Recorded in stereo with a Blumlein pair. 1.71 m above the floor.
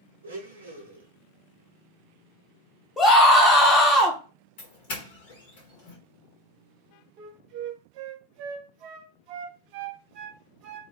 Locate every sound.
0.2 s a blender: 70° right, 0.9 m
3.0 s a scream: 15° left, 1.1 m
4.6 s a doorbell: 50° left, 1.1 m
7.2 s a flute: 40° right, 0.5 m